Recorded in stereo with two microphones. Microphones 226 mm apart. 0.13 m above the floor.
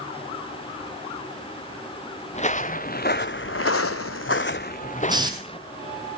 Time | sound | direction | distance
2.3 | footsteps | 30° left (ahead or behind) | 1.0 m
5.1 | a hiss | 20° right (ahead or behind) | 1.8 m